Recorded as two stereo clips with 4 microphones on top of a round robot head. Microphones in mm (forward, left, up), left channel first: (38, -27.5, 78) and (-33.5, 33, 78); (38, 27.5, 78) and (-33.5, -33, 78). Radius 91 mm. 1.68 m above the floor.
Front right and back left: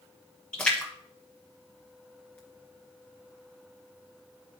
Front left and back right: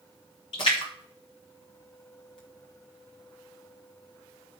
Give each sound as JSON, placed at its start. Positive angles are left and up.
{"t": 0.5, "sound": "a splash", "azimuth_deg": 30, "distance_m": 0.9}